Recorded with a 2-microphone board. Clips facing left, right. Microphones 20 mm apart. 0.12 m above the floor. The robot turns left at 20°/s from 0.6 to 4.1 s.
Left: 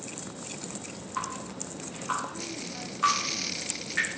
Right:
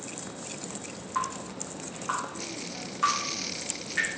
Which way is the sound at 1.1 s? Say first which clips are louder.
Right 3 dB; 40° right (ahead or behind).